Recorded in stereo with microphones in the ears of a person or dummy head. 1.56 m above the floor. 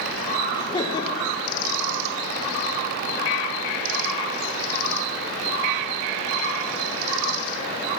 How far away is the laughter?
About 0.9 m.